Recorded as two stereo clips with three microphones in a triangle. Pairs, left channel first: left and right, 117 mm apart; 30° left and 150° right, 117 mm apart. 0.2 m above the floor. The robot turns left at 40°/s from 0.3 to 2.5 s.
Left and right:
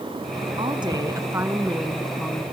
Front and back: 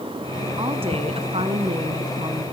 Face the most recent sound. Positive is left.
turn(degrees=160)